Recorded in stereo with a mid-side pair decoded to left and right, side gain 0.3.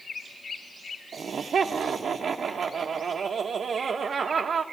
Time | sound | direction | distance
1.1 | laughter | 65° right | 1.1 m